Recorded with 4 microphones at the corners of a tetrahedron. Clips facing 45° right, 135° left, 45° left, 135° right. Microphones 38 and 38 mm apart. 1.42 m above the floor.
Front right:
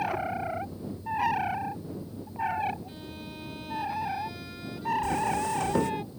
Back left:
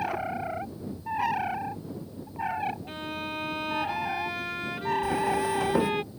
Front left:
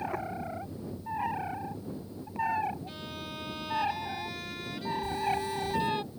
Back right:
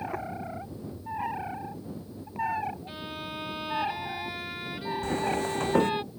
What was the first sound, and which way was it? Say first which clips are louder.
A violin: back left 7 dB, back right 3 dB; 155° left.